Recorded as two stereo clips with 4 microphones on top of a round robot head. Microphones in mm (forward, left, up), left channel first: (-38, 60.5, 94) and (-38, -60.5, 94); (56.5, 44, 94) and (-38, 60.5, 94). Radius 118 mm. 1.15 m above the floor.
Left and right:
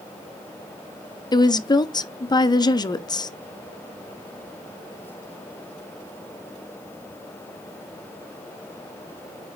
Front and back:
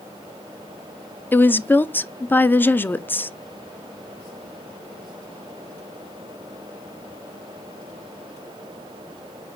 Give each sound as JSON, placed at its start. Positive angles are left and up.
{"t": 1.3, "sound": "a woman speaking", "azimuth_deg": 55, "distance_m": 0.7}